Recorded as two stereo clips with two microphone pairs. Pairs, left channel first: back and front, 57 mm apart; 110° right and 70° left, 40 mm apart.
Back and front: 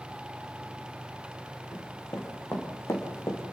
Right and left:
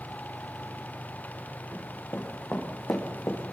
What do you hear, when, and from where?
1.7 s running footsteps: 135° right, 5 m; by 3.4 s 145° right, 5 m